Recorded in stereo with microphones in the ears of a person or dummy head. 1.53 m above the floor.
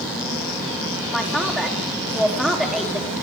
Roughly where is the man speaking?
Centre.